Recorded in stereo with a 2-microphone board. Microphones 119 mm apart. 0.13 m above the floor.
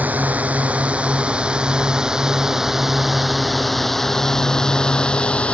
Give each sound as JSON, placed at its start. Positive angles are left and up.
{"t": 0.0, "sound": "a drone", "side_deg": -10}